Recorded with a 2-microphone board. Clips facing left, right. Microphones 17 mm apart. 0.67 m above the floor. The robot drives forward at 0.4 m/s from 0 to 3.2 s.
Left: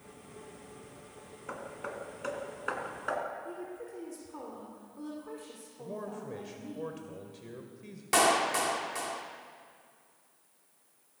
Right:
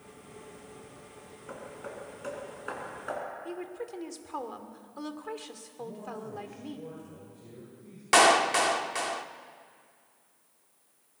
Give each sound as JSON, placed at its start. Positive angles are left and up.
{"t": 1.5, "sound": "hammering", "side_deg": 20, "distance_m": 2.5}
{"t": 3.5, "sound": "a woman speaking", "side_deg": -50, "distance_m": 2.0}
{"t": 5.8, "sound": "a man speaking", "side_deg": 60, "distance_m": 2.5}
{"t": 8.1, "sound": "a clap", "side_deg": -25, "distance_m": 1.0}